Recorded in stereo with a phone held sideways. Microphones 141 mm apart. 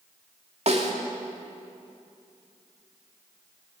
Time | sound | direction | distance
0.7 | a snare drum | 50° right (ahead or behind) | 2.5 m